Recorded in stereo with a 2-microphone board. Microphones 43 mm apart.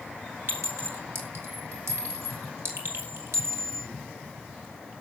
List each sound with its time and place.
0.5 s a clink: 70° right (ahead or behind), 4 m